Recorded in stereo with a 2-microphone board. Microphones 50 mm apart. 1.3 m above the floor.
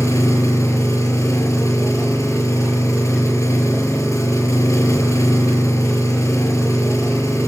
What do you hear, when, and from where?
0.0 s an engine running: 80° left, 6 m